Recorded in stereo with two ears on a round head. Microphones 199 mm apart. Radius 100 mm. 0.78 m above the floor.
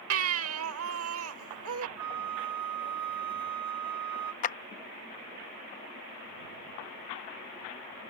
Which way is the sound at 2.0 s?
75° right (ahead or behind).